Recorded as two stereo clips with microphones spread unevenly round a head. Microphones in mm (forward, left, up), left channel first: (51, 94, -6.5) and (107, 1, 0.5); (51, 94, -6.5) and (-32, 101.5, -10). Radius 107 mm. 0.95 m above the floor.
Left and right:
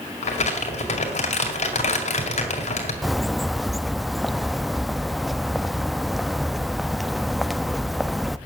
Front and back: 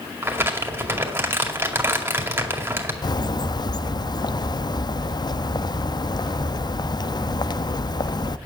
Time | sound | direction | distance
0.2 | crumpling | 115° left | 2 m
3.0 | a bird | 30° left | 0.5 m